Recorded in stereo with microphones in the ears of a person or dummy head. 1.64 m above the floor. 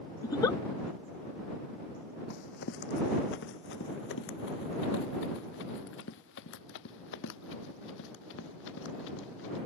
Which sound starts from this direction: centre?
A giggle, at 0.2 s.